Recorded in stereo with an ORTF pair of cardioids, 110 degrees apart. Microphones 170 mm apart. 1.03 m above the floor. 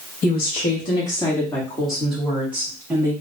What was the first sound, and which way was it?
A woman speaking, 45° left.